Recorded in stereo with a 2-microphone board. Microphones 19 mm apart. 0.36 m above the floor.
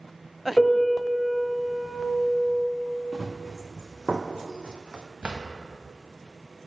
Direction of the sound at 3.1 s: 15° right (ahead or behind).